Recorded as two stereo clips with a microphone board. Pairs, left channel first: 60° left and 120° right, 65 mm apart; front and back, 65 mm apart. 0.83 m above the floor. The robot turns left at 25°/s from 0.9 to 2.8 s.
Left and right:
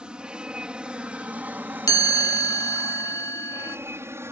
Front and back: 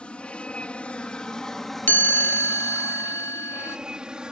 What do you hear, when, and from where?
0.0 s an aircraft: 60° right; by 4.3 s 110° right
1.9 s a chime: 55° left; by 3.8 s 35° left